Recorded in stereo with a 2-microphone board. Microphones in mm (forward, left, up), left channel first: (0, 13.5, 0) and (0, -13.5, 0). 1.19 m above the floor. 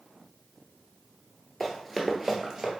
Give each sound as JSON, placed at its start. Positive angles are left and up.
{"t": 1.6, "sound": "running footsteps", "side_deg": 5, "distance_m": 1.2}